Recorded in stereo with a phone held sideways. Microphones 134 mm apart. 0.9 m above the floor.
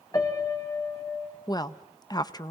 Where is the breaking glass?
I don't hear breaking glass.